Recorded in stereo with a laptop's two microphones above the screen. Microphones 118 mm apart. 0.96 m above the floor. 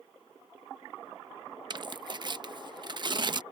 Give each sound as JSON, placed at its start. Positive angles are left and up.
{"t": 1.7, "sound": "tearing paper", "side_deg": -40}